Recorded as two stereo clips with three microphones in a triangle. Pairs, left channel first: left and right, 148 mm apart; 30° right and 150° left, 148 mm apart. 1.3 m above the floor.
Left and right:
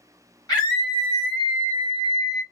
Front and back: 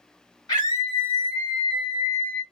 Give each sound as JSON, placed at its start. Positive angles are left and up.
{"t": 0.5, "sound": "a scream", "azimuth_deg": 25, "distance_m": 1.4}